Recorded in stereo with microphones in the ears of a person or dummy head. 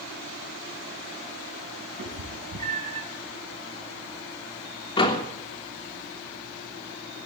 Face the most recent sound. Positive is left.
turn(degrees=25)  # may be behind; listen again after turning